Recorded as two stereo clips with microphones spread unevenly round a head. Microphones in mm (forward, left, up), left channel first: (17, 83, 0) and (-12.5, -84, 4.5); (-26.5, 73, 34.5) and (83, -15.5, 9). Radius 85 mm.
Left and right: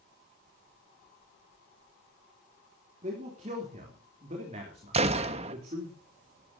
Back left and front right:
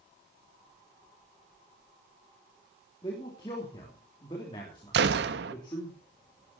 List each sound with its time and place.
3.0 s a man speaking: 150° right, 3.5 m
4.9 s a gunshot: 45° right, 1.1 m